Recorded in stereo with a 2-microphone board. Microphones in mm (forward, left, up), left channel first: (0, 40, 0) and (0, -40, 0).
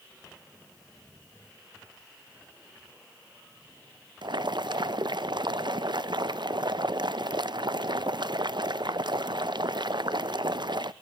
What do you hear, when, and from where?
4.2 s boiling: 65° right (ahead or behind), 0.6 m